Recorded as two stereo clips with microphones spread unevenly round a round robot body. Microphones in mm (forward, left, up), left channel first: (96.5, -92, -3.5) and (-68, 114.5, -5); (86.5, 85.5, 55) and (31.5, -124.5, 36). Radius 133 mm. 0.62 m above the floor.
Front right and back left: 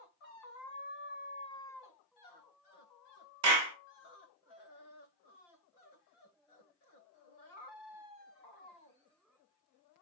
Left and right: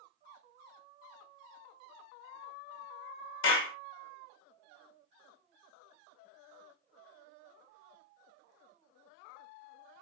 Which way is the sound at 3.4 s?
105° left.